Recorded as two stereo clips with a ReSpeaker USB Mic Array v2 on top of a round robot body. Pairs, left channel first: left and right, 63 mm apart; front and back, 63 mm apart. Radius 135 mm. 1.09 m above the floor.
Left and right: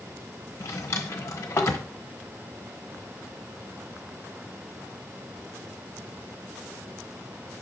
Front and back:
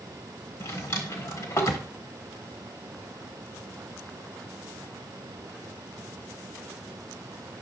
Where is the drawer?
40° left, 1.1 m.